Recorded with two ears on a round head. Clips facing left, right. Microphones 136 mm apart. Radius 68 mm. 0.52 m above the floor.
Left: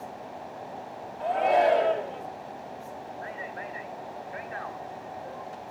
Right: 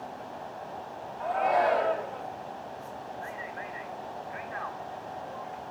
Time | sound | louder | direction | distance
1.2 | a shout | left 3 dB | 30° left (ahead or behind) | 1.6 m
3.2 | a man speaking | left 1 dB | 40° left (ahead or behind) | 1.6 m